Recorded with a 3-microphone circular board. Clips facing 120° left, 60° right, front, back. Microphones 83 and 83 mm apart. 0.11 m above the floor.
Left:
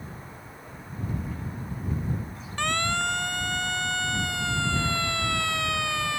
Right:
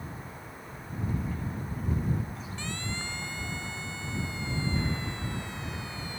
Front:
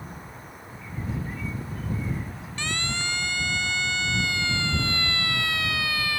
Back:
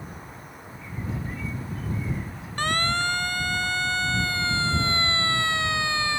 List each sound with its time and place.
2.6 s a siren: 140° left; by 6.2 s 115° left